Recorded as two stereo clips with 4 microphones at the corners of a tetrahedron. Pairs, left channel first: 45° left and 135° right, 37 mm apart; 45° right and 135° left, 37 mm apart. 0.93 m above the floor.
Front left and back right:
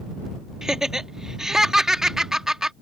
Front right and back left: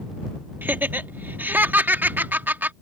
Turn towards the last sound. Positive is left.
turn(degrees=150)